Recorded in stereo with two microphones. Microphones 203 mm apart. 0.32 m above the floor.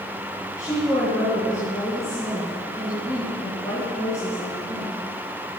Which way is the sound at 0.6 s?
15° left (ahead or behind).